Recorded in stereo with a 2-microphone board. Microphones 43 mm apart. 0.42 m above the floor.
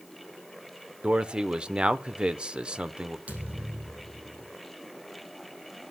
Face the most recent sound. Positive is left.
turn(degrees=-35)  # may be behind; listen again after turning